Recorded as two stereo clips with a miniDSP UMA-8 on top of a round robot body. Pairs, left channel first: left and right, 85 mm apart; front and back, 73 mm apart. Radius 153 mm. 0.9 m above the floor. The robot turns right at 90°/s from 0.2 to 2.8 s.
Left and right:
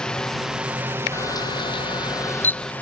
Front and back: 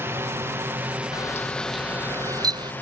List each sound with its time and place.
0.0 s a drone: 165° left; by 2.8 s 35° left
1.1 s a camera shutter: 35° left; by 2.7 s 175° left